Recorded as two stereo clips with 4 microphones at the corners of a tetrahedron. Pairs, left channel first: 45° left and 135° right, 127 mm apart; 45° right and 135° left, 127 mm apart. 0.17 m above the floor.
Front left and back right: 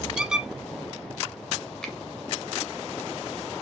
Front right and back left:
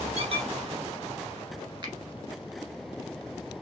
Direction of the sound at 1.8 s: 125° left.